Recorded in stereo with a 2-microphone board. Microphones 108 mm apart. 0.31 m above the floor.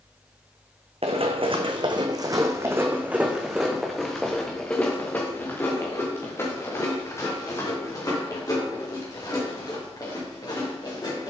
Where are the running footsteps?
65° right (ahead or behind), 1.2 m; by 11.3 s 40° left (ahead or behind), 4.5 m.